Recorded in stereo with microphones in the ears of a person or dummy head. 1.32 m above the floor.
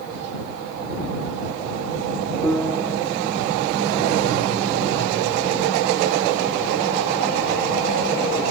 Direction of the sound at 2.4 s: 5° left (ahead or behind).